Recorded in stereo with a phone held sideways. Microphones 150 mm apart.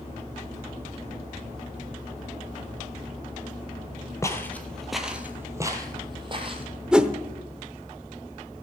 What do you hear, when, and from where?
4.2 s footsteps: 20° left (ahead or behind), 1.3 m; by 6.7 s 40° right (ahead or behind), 1.9 m
6.9 s a whoosh: 5° right (ahead or behind), 0.8 m